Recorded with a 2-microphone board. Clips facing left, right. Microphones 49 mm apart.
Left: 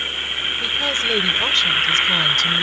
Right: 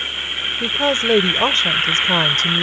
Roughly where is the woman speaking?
Right.